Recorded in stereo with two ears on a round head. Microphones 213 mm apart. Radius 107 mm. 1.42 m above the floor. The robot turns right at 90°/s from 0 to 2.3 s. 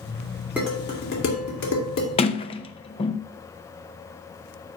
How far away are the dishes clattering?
About 3 m.